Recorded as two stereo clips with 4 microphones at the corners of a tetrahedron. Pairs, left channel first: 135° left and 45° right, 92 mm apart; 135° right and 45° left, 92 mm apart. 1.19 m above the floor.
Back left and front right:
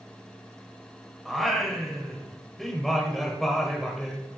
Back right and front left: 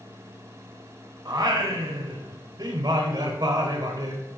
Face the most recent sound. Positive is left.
turn(degrees=45)